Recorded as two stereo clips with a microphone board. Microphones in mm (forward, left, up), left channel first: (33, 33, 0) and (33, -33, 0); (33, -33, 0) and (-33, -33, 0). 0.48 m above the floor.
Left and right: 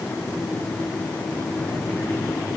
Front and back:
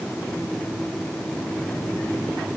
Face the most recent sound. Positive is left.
No sound to turn to.